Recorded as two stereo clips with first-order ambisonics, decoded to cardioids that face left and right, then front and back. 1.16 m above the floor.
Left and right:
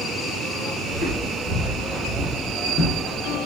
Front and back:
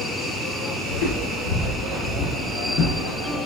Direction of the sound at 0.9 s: 5° left.